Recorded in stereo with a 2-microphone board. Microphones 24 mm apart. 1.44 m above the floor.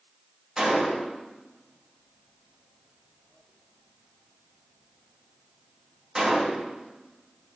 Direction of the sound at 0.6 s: 25° right (ahead or behind).